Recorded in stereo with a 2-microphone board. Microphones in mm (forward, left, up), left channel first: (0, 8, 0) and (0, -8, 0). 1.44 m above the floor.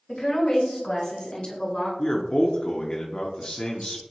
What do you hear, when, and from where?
0.1 s a woman speaking: 70° left (ahead or behind), 1.6 m; by 1.9 s 65° left (ahead or behind), 3 m
2.0 s a man speaking: 75° left (ahead or behind), 0.6 m